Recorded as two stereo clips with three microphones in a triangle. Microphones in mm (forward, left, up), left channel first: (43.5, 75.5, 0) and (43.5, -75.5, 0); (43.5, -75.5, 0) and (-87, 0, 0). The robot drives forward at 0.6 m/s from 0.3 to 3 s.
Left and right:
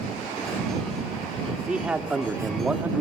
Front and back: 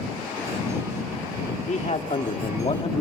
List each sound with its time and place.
1.7 s a man speaking: 10° right, 2.0 m; by 3.0 s 15° right, 1.4 m